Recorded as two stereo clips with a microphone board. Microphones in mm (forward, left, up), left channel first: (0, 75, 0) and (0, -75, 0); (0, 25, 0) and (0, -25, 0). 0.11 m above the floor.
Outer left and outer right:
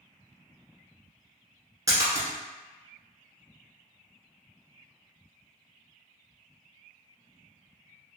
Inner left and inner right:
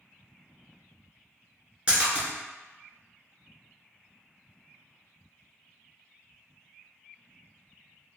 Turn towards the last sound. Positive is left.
turn(degrees=-25)  # may be behind; listen again after turning